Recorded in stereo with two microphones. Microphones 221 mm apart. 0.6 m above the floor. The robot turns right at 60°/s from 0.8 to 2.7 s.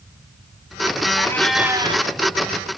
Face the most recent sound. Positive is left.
turn(degrees=-110)